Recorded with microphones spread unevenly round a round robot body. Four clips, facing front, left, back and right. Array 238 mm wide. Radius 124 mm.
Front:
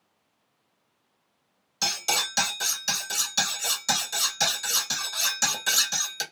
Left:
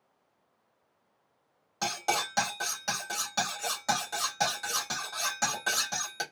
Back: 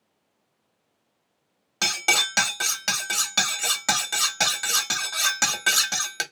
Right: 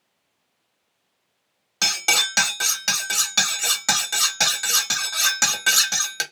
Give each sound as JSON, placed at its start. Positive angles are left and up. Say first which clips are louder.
{"t": 1.8, "sound": "cutlery clinking", "louder": "right 3 dB, back 3 dB", "azimuth_deg": -135, "distance_m": 1.0}